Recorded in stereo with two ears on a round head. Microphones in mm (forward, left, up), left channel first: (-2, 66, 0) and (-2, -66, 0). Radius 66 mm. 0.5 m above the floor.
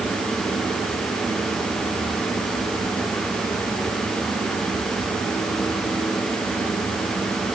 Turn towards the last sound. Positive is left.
No sound to turn to.